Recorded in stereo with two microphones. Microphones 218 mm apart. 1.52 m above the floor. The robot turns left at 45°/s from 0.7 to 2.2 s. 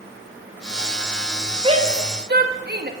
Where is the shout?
25° right (ahead or behind), 1.9 m; by 2.9 s 50° right (ahead or behind), 1.9 m.